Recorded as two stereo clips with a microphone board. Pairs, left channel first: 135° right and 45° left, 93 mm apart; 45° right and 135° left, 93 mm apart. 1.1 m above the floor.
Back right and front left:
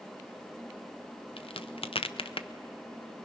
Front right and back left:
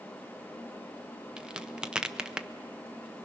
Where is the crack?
145° right, 0.6 m.